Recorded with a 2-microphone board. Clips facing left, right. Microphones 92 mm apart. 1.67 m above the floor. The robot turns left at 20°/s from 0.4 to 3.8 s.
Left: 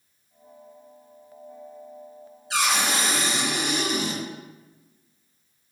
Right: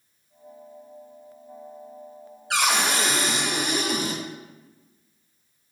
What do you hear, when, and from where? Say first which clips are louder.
2.5 s a cupboard door: right 1 dB; 70° right (ahead or behind), 0.7 m; by 4.2 s 50° right (ahead or behind), 0.7 m